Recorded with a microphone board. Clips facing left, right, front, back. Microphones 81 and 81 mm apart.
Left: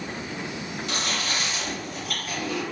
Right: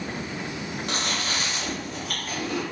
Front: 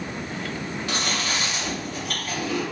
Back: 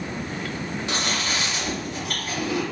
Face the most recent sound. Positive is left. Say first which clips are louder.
# even, even
turn(degrees=-120)